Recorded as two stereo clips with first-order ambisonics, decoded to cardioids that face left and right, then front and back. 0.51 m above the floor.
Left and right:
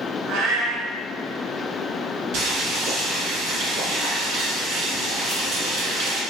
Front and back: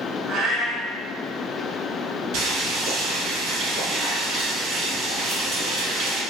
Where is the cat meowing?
120° right, 0.7 m.